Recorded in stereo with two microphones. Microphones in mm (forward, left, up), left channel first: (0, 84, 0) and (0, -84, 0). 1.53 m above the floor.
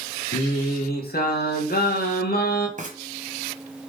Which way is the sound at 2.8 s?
45° right (ahead or behind).